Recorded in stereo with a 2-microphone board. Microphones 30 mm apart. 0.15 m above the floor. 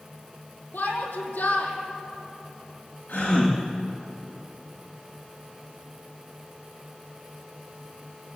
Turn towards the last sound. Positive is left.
turn(degrees=75)  # may be behind; listen again after turning